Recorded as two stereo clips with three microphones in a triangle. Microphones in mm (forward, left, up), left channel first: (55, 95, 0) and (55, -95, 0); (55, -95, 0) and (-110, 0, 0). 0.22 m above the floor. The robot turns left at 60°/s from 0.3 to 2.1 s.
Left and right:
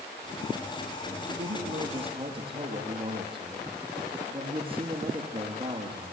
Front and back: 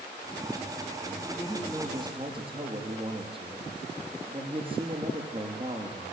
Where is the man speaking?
100° right, 6 m; by 6.1 s 150° right, 6 m.